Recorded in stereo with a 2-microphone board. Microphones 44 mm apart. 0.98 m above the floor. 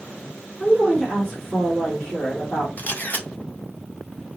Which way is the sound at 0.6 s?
10° left (ahead or behind).